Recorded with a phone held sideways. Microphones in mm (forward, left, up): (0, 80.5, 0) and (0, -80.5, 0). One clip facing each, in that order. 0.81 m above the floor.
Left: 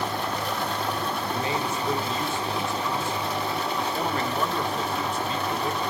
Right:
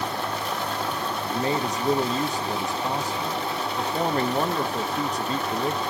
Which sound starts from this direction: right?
A man speaking, at 1.3 s.